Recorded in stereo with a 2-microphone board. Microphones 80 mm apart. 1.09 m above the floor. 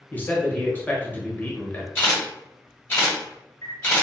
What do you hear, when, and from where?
0.1 s a man speaking: 20° left (ahead or behind), 0.8 m
1.9 s a camera shutter: 25° left (ahead or behind), 1.7 m